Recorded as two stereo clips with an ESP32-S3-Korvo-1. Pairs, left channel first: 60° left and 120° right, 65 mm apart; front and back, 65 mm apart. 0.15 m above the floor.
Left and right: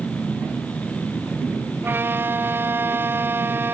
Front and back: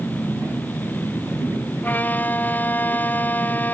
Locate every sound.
1.8 s a violin: 60° right